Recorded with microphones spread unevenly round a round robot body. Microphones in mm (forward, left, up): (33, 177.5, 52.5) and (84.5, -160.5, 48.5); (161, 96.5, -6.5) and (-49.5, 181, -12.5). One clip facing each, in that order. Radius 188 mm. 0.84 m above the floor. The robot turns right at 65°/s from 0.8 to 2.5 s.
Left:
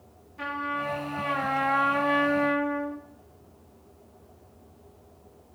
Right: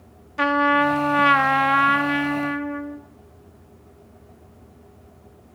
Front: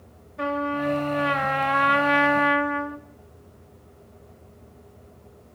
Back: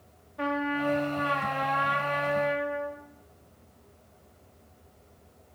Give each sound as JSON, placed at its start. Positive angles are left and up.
{"t": 0.4, "sound": "a trumpet", "azimuth_deg": -100, "distance_m": 0.5}